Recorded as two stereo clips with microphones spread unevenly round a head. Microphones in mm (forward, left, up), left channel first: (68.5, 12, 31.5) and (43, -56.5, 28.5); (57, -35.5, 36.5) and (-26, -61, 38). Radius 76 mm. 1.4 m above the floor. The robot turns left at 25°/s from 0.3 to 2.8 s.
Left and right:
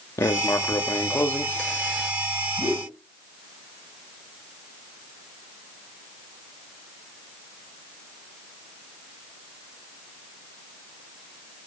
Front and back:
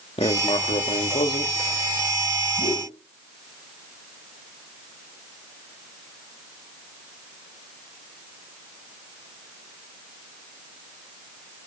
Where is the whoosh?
140° right, 8.5 m; by 2.9 s 145° right, 8.5 m.